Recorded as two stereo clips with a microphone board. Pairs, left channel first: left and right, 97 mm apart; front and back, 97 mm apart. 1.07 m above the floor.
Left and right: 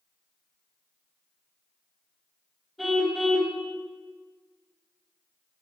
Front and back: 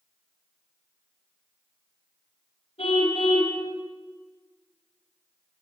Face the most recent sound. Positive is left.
turn(degrees=0)